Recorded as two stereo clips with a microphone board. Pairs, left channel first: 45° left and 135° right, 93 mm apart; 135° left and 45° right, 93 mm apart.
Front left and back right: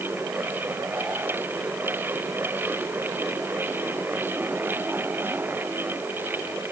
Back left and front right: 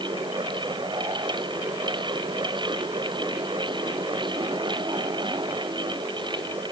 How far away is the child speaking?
No child speaking in this recording.